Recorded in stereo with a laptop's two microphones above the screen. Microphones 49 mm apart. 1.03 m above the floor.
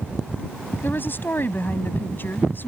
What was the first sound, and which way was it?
A woman speaking, 45° left (ahead or behind).